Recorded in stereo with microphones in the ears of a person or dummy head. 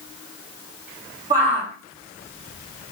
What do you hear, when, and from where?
1.3 s a shout: 25° right (ahead or behind), 3 m